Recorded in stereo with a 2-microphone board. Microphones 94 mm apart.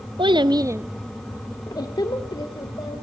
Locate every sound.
0.2 s a child speaking: 60° right (ahead or behind), 1.1 m; by 3.0 s 55° left (ahead or behind), 3 m